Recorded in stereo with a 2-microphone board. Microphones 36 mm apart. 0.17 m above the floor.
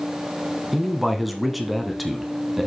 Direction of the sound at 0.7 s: 5° right (ahead or behind).